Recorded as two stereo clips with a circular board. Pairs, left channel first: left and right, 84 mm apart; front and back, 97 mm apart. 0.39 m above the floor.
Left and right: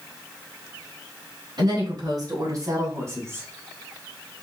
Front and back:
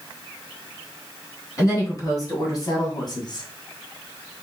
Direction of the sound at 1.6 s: 55° right.